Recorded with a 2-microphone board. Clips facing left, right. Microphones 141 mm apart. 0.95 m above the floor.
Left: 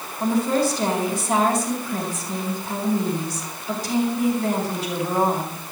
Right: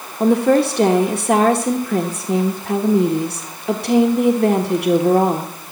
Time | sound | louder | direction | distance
0.2 | a woman speaking | right 7 dB | 65° right (ahead or behind) | 1.1 m